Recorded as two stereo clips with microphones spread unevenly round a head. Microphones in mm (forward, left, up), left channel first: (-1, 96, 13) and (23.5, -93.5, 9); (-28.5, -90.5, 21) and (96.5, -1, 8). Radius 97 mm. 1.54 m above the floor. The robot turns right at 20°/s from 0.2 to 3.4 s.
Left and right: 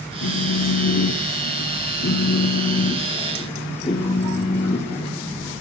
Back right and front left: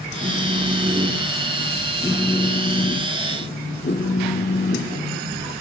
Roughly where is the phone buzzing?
Left.